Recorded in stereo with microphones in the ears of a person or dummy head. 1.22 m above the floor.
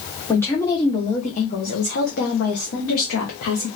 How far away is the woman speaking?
About 1.2 m.